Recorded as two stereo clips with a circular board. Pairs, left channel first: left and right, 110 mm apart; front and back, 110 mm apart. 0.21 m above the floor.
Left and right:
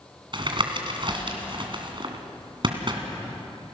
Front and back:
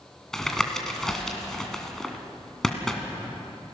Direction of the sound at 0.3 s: 85° right.